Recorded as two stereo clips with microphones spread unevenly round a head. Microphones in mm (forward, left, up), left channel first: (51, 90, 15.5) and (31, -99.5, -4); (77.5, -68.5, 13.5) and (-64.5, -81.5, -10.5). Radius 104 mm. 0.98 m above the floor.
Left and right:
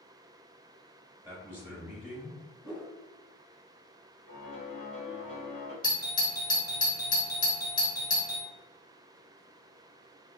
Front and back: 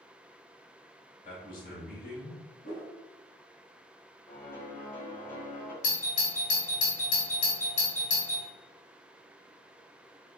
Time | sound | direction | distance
1.2 | a man speaking | 20° right | 2.0 m
2.6 | a whoosh | 30° right | 1.8 m
4.3 | a piano | 65° right | 1.9 m
5.8 | a doorbell | 20° left | 1.2 m